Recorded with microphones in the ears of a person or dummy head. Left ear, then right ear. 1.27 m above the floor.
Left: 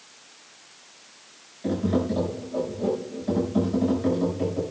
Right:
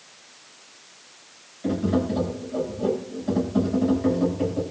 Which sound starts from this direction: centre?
Tapping, at 1.6 s.